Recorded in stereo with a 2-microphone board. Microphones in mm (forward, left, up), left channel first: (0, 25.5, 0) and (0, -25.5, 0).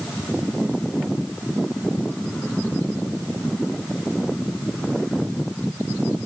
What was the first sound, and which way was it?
Only background noise.